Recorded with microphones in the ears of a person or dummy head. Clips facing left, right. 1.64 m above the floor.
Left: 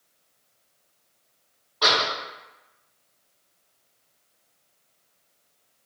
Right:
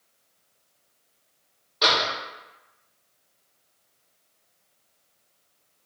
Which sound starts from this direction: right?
A door slam, at 1.8 s.